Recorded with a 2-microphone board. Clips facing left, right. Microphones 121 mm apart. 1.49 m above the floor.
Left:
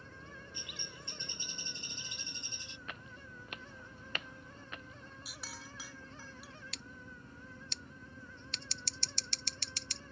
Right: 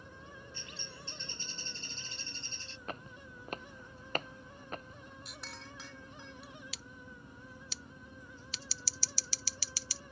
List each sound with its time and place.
0.5 s a bird: 15° left (ahead or behind)
2.9 s footsteps: 35° right (ahead or behind); by 5.0 s 40° right (ahead or behind)
5.2 s a clink: 5° left (ahead or behind)
6.7 s scissors: 5° right (ahead or behind)